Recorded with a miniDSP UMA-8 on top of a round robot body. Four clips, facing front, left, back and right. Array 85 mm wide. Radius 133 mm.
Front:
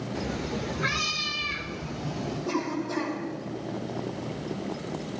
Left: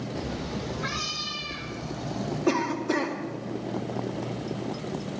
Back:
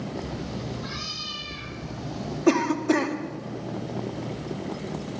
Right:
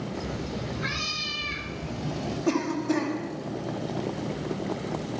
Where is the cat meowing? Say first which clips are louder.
Even, front 2 dB; 20° left, 1.3 m; by 2.4 s 65° right, 1.6 m.